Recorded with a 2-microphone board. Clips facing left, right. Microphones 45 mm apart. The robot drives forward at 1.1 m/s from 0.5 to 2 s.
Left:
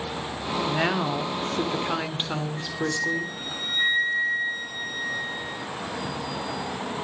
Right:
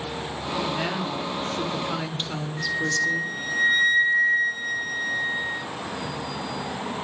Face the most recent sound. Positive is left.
turn(degrees=0)  # may be behind; listen again after turning